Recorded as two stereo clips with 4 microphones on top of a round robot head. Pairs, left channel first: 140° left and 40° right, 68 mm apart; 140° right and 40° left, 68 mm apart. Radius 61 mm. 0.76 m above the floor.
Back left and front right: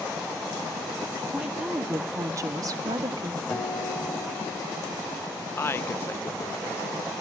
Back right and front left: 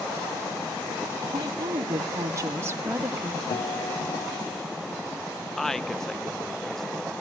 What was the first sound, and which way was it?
A woman speaking, 45° left.